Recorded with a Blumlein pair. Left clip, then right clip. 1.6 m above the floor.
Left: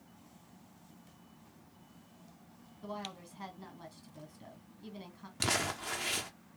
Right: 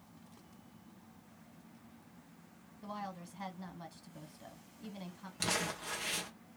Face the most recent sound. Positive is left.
turn(degrees=15)